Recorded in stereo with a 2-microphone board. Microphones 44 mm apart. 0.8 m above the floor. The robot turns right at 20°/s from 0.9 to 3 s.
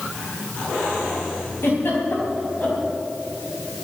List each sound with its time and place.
1.6 s a giggle: 65° left (ahead or behind), 4.5 m; by 2.8 s 40° left (ahead or behind), 4.5 m